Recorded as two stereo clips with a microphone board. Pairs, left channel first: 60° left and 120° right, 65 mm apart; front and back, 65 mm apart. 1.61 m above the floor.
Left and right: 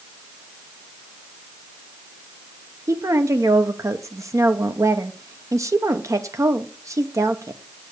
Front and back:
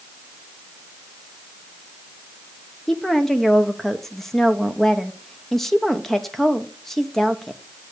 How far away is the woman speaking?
About 0.9 m.